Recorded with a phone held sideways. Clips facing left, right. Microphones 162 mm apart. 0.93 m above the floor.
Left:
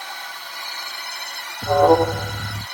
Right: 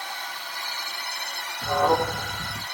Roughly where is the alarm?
Left.